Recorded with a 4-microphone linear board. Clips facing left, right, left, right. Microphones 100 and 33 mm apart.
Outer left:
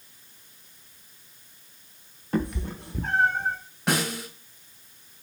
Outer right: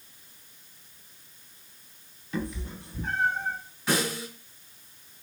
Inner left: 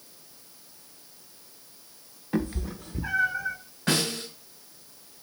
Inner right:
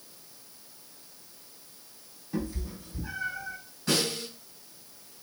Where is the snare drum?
60° left (ahead or behind), 2.5 m.